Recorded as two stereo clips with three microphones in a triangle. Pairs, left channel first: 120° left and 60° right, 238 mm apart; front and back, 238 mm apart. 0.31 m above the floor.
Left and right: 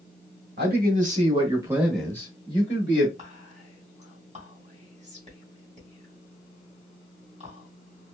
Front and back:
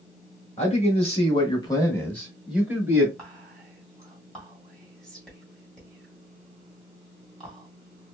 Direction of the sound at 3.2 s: 85° right.